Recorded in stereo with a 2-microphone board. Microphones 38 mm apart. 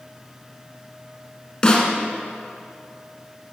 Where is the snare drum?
25° left (ahead or behind), 3 m.